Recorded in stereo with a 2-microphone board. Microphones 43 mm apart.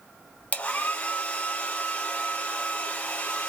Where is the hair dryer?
35° left (ahead or behind), 1.0 m.